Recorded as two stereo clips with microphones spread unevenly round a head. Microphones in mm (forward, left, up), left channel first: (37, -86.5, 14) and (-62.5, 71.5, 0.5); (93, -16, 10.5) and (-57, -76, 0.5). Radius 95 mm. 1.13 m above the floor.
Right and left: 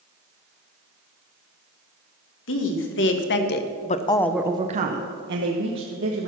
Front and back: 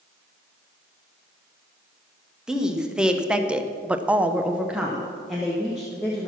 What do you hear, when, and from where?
2.5 s a woman speaking: 75° right, 1.6 m; by 6.3 s 115° left, 1.8 m